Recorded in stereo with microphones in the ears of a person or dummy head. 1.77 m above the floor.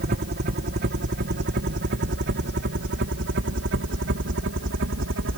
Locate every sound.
0.0 s a helicopter: 50° right (ahead or behind); by 5.4 s 60° right (ahead or behind)